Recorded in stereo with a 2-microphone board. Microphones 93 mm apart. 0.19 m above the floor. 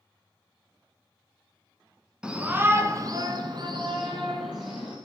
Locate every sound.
2.2 s a shout: 10° right (ahead or behind), 1.6 m; by 5.0 s 50° right (ahead or behind), 3 m